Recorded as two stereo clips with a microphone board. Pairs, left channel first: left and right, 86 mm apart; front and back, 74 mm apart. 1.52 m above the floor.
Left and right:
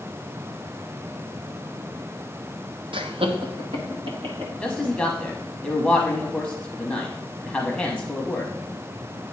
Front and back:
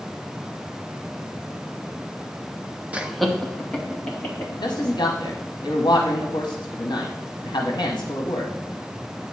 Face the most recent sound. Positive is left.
turn(degrees=5)